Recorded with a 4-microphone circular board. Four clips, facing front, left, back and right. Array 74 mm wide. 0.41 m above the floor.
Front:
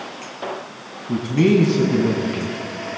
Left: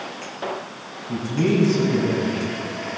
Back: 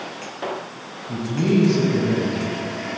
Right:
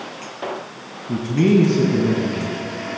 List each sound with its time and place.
1.1 s a man speaking: 30° right, 4.5 m